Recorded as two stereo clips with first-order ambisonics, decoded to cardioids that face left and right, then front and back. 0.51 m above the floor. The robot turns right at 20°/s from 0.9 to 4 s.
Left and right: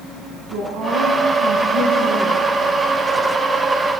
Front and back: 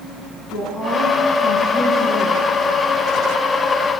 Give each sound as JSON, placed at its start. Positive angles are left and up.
{"t": 0.5, "sound": "a woman speaking", "azimuth_deg": -95, "distance_m": 6.0}